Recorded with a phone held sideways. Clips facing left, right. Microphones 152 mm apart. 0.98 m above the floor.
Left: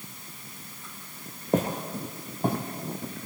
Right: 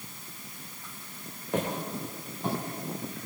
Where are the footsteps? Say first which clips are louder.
Left 4 dB; 40° left (ahead or behind), 1.2 m; by 2.6 s 50° left (ahead or behind), 1.7 m.